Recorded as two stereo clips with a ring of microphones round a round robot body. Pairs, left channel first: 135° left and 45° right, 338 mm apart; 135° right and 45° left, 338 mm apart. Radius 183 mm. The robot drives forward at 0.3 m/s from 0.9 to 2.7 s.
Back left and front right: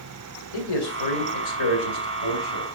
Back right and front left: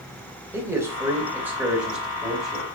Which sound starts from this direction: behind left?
A man speaking, at 0.5 s.